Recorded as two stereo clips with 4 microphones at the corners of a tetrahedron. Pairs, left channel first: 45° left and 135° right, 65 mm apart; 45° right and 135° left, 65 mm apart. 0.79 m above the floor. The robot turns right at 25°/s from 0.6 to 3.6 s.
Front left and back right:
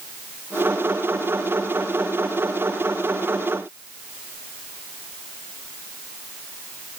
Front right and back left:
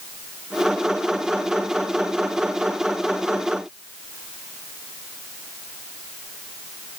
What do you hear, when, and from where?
Only background noise.